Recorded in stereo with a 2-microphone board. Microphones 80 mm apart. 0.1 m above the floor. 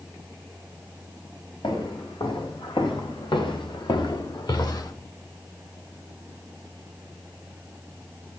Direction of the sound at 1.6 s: 80° left.